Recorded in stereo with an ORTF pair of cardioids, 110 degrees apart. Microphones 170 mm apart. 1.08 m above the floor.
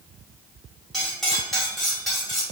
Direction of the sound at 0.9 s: Straight ahead.